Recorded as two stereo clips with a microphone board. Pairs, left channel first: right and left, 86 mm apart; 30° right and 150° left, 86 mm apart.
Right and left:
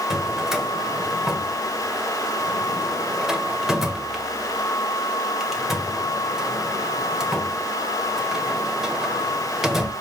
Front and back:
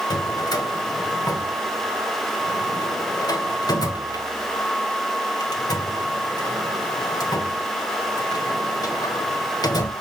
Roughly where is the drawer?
Ahead.